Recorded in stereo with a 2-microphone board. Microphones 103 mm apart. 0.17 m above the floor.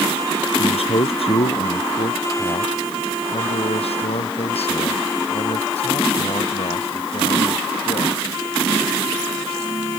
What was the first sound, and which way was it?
A man speaking, 70° left (ahead or behind).